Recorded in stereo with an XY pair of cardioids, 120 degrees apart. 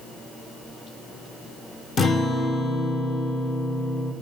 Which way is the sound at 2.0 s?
40° left.